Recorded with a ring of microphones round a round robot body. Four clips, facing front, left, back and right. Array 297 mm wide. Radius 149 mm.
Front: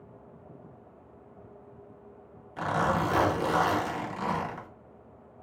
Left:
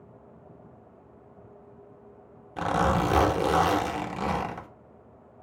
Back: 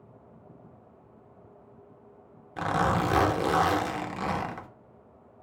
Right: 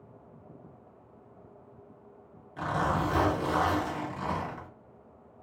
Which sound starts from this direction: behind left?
A zipper, at 2.6 s.